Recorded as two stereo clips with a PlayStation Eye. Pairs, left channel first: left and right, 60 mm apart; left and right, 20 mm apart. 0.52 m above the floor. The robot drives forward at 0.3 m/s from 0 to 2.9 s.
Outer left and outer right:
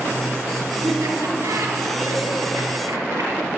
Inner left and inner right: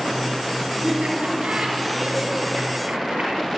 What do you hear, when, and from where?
0.8 s laughter: 80° right, 3.5 m; by 3.5 s 70° right (ahead or behind), 4 m